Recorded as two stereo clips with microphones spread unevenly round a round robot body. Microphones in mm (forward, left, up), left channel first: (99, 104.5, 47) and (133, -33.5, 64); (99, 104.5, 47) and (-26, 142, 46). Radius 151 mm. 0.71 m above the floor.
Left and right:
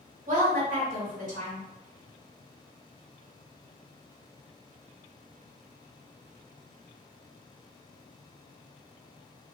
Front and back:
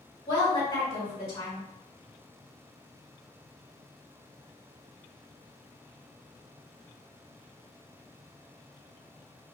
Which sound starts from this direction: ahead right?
A woman speaking, at 0.3 s.